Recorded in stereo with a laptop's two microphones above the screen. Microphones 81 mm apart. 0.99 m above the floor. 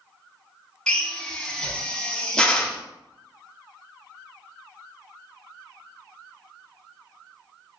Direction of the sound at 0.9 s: 10° left (ahead or behind).